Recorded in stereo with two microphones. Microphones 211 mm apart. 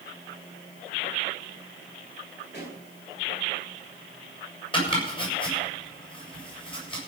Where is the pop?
50° left (ahead or behind), 9 m.